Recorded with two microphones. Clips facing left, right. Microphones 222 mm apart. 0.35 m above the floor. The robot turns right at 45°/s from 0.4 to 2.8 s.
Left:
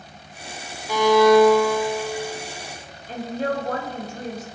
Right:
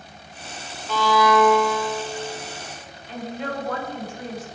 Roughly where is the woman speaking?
Left.